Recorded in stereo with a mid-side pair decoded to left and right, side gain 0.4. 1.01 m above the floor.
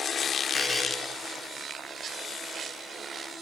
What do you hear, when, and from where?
0.5 s a buzzer: 15° left, 1.0 m